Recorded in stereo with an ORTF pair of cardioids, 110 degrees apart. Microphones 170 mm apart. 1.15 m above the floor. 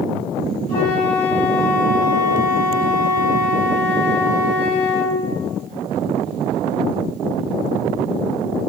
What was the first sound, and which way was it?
A flute, 60° left.